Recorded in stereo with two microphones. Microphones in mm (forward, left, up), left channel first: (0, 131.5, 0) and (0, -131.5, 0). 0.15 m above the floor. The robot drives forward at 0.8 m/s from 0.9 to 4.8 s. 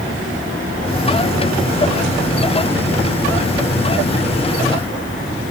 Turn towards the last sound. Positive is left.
No sound to turn to.